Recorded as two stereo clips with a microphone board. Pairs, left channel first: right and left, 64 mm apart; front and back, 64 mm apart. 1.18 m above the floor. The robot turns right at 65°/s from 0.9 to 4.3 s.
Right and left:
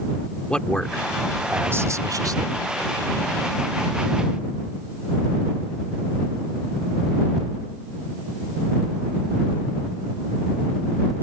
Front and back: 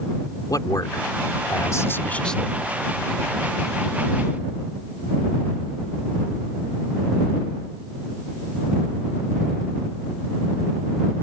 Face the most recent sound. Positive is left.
turn(degrees=-155)